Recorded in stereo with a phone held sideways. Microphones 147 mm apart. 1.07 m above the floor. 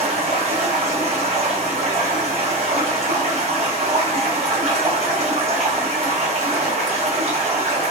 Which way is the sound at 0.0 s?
50° right (ahead or behind).